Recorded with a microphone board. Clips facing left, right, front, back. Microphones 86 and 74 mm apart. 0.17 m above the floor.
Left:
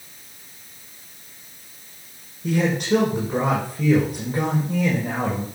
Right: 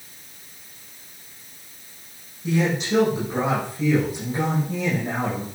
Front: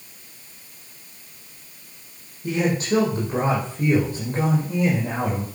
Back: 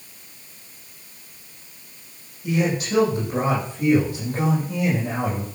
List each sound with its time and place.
2.4 s a man speaking: 55° left, 7 m